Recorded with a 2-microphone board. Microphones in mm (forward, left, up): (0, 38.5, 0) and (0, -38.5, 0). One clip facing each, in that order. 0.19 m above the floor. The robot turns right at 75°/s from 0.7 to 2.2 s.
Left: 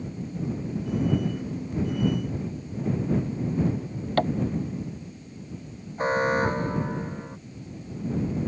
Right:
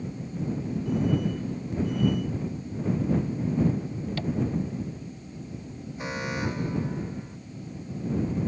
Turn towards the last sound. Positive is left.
turn(degrees=40)  # may be behind; listen again after turning